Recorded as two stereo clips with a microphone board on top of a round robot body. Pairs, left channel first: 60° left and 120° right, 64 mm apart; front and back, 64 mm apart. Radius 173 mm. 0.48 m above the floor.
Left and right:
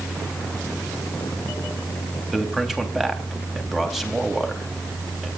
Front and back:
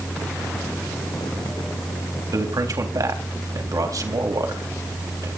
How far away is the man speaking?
About 3.5 m.